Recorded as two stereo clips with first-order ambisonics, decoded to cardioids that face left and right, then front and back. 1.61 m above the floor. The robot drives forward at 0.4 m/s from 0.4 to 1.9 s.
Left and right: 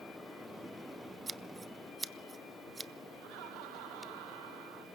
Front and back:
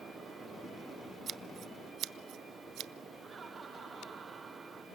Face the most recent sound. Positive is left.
turn(degrees=-105)